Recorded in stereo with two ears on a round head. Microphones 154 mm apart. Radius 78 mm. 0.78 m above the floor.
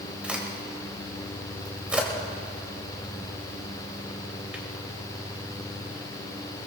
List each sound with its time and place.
0.2 s a crack: 5° right (ahead or behind), 3 m